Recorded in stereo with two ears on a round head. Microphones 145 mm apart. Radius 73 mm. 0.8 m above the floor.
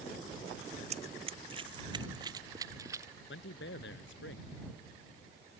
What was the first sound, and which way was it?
Running footsteps, 45° right (ahead or behind).